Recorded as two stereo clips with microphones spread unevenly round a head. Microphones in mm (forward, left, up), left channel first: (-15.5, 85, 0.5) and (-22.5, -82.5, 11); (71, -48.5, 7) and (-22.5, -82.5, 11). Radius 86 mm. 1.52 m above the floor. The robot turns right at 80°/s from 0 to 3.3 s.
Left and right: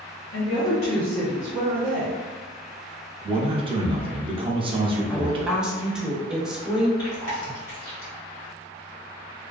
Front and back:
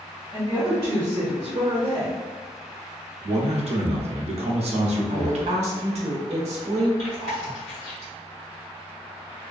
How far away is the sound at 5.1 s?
About 0.8 m.